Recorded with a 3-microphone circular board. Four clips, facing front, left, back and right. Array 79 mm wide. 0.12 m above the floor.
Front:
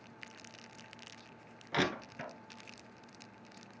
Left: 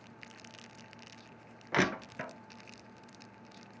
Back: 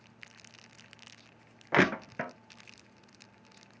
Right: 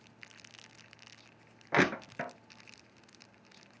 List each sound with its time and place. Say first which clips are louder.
1.7 s crushing: right 2 dB, back 8 dB; 160° right, 0.7 m